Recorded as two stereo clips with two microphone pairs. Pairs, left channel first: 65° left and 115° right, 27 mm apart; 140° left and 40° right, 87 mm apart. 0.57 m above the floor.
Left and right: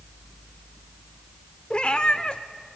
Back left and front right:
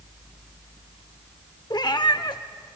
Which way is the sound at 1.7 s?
105° left.